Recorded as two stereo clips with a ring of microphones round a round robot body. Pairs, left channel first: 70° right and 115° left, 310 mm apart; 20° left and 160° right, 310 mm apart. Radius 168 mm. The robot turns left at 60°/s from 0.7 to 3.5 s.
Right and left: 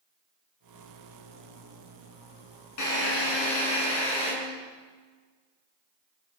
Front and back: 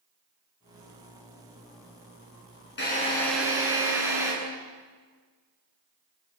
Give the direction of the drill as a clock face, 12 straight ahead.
1 o'clock.